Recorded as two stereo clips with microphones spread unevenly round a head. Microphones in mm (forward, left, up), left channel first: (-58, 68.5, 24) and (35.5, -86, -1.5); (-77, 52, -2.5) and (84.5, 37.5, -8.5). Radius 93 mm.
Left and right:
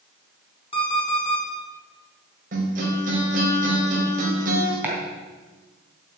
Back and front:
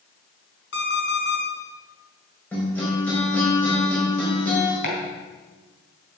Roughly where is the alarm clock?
Behind.